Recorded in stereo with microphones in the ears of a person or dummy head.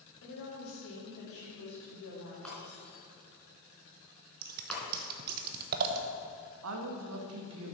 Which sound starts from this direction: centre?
Breaking glass, at 2.5 s.